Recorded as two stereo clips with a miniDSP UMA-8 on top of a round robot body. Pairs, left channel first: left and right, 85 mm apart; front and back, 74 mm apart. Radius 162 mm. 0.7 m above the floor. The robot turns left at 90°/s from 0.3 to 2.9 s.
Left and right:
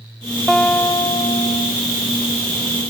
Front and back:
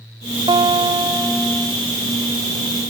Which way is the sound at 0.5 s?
Straight behind.